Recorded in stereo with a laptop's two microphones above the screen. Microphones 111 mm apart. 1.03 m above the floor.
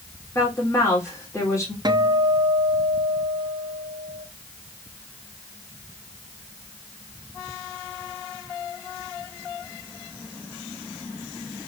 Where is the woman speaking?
25° left (ahead or behind), 3.5 m.